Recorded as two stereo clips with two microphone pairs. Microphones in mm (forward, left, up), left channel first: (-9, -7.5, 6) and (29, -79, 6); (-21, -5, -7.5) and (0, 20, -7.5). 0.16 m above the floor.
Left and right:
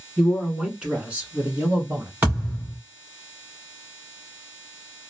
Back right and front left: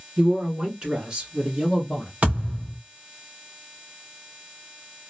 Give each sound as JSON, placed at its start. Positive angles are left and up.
{"t": 0.2, "sound": "a man speaking", "azimuth_deg": 25, "distance_m": 1.5}
{"t": 2.2, "sound": "a thud", "azimuth_deg": 5, "distance_m": 2.5}